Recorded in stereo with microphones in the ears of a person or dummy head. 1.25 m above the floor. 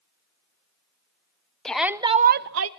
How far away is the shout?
About 0.8 m.